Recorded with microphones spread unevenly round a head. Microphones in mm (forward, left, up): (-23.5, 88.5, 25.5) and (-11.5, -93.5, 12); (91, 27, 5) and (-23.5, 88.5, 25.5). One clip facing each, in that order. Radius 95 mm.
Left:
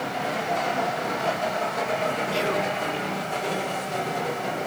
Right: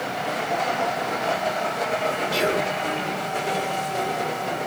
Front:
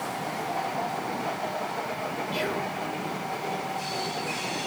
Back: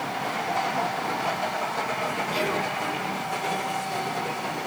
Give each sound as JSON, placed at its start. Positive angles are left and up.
{"t": 2.3, "sound": "whispering", "azimuth_deg": -150, "distance_m": 1.2}